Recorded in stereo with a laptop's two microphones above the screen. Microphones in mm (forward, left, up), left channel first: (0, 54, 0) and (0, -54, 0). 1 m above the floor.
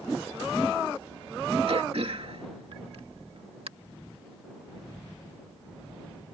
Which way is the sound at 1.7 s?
65° right (ahead or behind).